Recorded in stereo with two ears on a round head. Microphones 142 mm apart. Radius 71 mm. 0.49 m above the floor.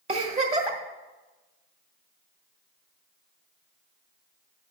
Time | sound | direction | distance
0.1 | a giggle | 40° right (ahead or behind) | 1.4 m